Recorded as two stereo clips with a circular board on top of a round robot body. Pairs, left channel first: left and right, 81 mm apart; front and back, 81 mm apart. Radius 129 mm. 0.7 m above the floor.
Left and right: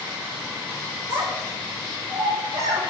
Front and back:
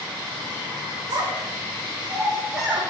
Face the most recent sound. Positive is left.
turn(degrees=-85)